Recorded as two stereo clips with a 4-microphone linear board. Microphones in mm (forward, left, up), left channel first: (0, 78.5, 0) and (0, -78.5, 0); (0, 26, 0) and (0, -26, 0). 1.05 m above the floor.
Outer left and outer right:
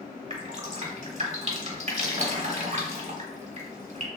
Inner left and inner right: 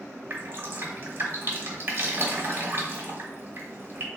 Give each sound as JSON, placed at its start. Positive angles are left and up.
{"t": 0.3, "sound": "dripping", "side_deg": -45, "distance_m": 1.1}